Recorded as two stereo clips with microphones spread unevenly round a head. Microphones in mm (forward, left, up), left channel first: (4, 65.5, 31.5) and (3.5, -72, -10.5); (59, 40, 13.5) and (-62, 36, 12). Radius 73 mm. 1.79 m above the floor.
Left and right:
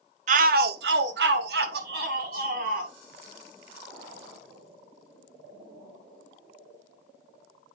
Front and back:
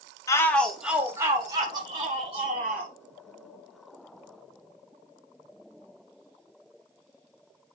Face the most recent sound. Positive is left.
turn(degrees=-125)